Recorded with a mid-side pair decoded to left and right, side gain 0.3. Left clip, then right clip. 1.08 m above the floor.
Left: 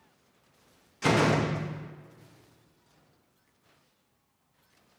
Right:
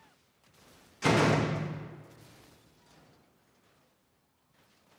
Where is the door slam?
10° left, 0.9 m.